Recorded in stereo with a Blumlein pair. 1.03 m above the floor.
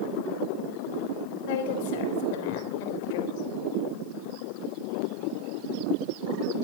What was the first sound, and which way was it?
A woman speaking, 50° left.